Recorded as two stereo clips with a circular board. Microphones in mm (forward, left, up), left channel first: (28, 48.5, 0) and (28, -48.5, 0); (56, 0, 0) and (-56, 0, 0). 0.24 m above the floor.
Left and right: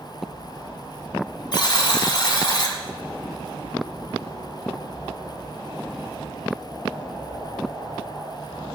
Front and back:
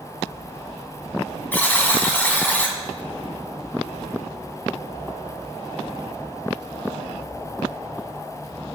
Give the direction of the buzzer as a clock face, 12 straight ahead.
10 o'clock.